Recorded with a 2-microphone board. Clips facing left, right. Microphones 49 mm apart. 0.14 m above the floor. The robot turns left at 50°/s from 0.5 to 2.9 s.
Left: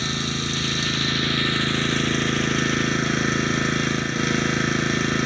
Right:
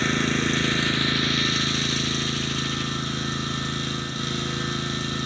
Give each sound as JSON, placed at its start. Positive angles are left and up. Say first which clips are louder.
{"t": 0.0, "sound": "an engine running", "louder": "right 4 dB", "azimuth_deg": -145, "distance_m": 0.8}